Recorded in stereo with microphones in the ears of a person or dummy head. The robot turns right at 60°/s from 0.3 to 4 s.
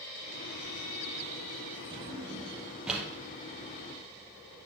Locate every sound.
1.9 s a drawer: 25° right (ahead or behind), 0.8 m; by 3.1 s centre (ahead or behind), 0.8 m